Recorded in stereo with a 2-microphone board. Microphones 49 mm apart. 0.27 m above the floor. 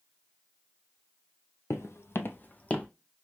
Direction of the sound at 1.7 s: 65° left (ahead or behind).